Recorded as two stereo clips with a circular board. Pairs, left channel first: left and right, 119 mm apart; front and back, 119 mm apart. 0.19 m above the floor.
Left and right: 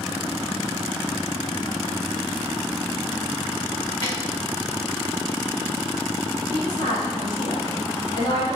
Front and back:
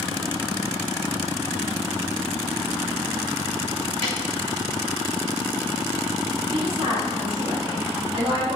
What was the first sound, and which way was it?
A snare drum, 150° left.